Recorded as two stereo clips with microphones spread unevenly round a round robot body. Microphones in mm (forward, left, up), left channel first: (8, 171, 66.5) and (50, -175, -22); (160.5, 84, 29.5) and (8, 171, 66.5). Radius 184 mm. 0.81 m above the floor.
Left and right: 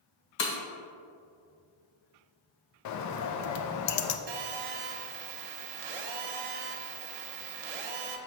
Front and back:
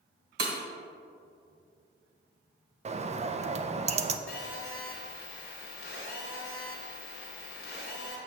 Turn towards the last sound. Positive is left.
turn(degrees=-65)